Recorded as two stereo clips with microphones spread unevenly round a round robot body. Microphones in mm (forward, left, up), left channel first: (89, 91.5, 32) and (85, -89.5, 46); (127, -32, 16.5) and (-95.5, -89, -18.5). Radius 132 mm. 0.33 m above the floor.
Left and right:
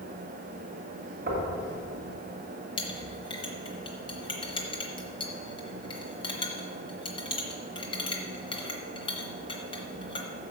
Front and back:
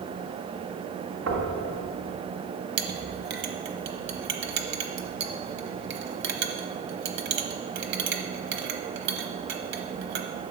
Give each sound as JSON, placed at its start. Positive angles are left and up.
{"t": 1.3, "sound": "knocking", "azimuth_deg": -145, "distance_m": 2.5}
{"t": 2.8, "sound": "a clink", "azimuth_deg": 150, "distance_m": 0.8}